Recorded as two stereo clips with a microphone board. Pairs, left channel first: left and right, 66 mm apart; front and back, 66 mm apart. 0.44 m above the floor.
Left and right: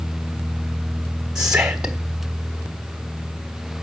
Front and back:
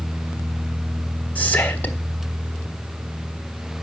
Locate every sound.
1.4 s whispering: 25° right, 1.4 m